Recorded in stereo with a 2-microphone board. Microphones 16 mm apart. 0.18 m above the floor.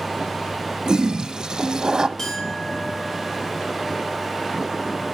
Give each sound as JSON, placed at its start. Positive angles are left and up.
{"t": 0.8, "sound": "a toilet flushing", "side_deg": -50, "distance_m": 1.3}
{"t": 2.2, "sound": "a clink", "side_deg": 30, "distance_m": 4.0}